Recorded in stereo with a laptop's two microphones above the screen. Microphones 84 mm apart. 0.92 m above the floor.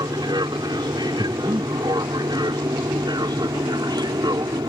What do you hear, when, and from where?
0.0 s an aircraft: 55° right (ahead or behind)
1.2 s breathing: 80° right